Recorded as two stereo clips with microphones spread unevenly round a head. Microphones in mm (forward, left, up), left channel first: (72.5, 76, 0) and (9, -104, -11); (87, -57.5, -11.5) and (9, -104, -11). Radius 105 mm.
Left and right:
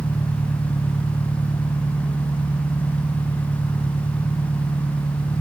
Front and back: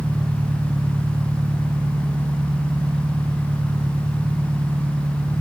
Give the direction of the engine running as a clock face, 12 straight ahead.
7 o'clock.